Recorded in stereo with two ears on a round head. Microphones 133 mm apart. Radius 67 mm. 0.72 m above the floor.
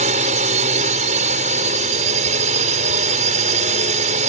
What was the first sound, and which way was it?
A drone, 55° right (ahead or behind).